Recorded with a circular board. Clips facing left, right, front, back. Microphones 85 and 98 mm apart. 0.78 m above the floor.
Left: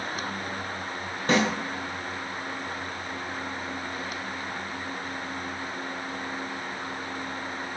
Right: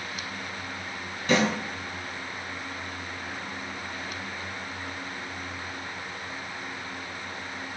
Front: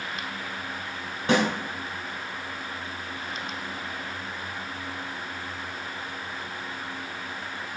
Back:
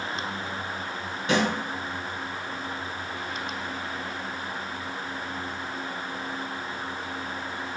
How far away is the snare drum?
About 1.5 m.